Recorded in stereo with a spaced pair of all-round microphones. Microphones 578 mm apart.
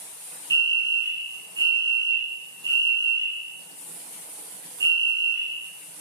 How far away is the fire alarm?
About 1.5 m.